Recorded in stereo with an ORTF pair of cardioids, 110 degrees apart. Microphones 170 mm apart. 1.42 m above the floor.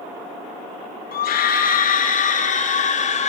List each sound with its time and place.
1.1 s a scream: 60° left, 3.5 m; by 3.3 s 40° left, 5.5 m